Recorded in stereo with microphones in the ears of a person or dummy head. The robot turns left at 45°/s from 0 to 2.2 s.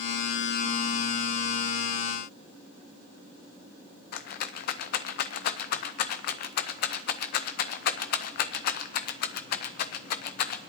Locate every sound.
4.1 s a rattle: 55° left (ahead or behind), 0.5 m